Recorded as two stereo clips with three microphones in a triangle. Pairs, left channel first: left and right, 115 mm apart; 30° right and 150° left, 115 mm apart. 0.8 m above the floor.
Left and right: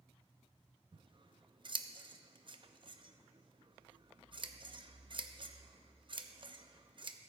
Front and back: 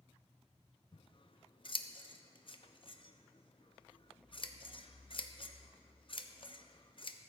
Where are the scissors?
60° right, 0.6 m.